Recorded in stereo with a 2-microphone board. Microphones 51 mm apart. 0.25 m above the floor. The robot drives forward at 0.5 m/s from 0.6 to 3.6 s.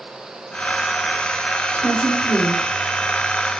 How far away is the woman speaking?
About 3.5 m.